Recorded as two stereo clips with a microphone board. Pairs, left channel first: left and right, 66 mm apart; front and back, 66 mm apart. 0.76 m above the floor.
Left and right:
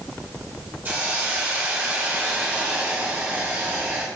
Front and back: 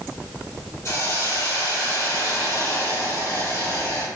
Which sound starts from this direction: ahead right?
A hiss, at 0.8 s.